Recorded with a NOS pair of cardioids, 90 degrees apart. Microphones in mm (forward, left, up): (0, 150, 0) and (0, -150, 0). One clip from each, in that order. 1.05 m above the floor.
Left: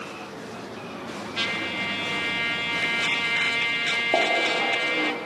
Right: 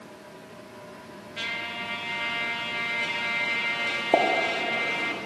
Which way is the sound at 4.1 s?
20° right.